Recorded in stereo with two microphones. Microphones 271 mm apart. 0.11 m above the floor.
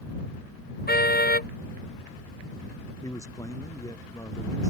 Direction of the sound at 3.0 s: 10° left (ahead or behind).